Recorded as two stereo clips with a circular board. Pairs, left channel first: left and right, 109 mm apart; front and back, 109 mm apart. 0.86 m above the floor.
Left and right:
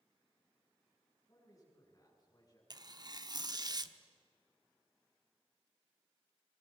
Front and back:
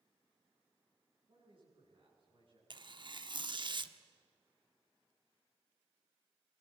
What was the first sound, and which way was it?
A man speaking, 145° left.